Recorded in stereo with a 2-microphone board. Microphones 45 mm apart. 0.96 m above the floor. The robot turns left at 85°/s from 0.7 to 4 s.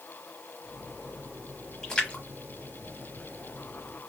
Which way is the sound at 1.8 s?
15° left (ahead or behind).